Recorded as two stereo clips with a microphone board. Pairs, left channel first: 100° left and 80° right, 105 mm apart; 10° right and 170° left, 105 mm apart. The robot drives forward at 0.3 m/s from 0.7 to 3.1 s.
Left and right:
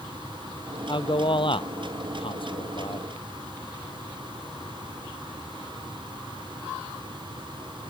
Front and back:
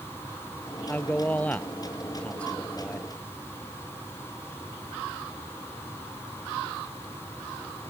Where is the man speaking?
65° left; by 3.1 s 70° left.